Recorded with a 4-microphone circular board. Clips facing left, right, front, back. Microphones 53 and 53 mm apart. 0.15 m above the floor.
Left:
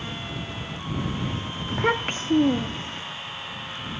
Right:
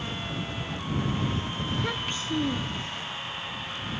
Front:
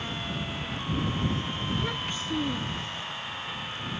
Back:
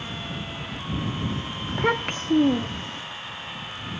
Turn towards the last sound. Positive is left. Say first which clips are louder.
# left 10 dB, back 11 dB
turn(degrees=135)